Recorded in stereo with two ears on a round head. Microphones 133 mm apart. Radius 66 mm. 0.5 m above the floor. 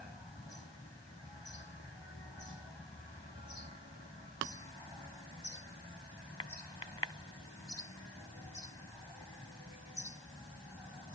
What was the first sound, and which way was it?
Only background noise.